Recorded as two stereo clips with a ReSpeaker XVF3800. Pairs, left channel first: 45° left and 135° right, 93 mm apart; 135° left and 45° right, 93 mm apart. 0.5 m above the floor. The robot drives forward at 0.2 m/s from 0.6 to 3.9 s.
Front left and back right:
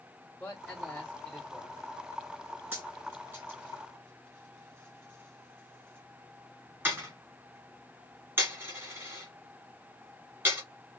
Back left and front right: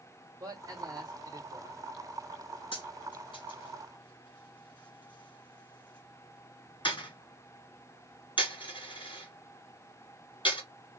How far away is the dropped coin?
About 2 m.